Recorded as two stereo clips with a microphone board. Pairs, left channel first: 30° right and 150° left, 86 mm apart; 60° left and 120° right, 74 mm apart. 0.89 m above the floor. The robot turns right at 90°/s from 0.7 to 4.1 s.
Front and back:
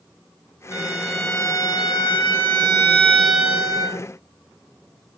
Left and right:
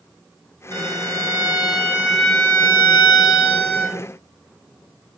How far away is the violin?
About 1.5 m.